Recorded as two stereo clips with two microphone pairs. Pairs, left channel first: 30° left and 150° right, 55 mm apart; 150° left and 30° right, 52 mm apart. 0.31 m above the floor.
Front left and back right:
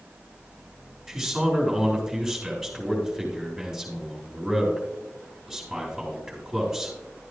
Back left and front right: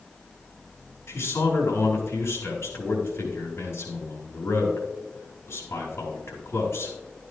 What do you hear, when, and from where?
1.1 s a man speaking: 125° left, 5 m